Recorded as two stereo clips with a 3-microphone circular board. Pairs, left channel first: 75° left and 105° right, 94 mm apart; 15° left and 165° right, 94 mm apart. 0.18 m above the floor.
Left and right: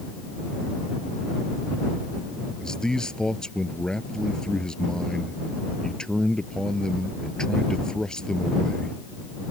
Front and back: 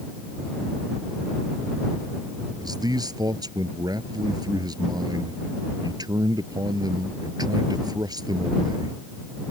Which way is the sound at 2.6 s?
160° left.